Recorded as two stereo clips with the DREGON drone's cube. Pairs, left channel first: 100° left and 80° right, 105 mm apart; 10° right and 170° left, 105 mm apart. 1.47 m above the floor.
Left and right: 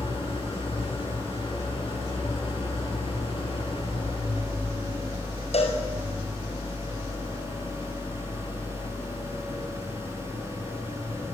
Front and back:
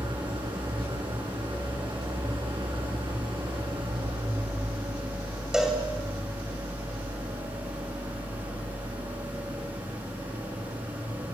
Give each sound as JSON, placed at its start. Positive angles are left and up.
{"t": 0.0, "sound": "an engine running", "azimuth_deg": 130, "distance_m": 10.0}
{"t": 5.5, "sound": "a cowbell", "azimuth_deg": 85, "distance_m": 6.0}